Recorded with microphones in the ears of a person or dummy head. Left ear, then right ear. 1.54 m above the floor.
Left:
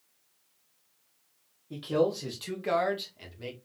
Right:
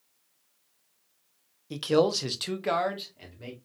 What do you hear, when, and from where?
1.7 s a man speaking: 80° right, 0.8 m; by 3.5 s 10° left (ahead or behind), 1.2 m